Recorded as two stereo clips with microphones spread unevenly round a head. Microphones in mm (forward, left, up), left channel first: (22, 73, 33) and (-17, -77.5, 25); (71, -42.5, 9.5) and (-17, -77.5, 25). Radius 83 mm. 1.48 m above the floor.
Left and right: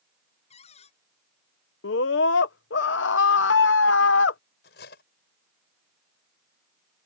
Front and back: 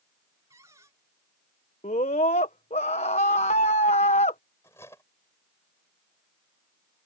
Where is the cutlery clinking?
100° left.